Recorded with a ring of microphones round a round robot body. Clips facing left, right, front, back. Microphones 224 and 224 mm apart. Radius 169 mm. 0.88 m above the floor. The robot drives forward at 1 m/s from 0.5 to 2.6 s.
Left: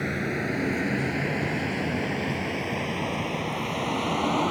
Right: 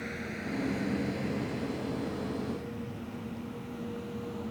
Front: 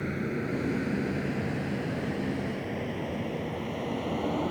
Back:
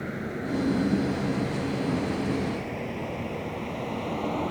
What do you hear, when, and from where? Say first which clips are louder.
0.0 s a vehicle: left 9 dB, front 1 dB; 70° left; by 4.5 s 85° left